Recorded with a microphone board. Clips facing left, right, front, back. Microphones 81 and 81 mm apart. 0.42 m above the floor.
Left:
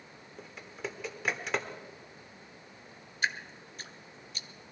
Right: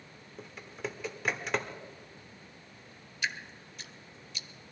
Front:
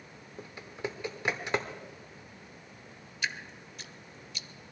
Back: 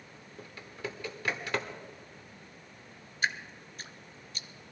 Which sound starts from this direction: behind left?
Dripping, at 3.2 s.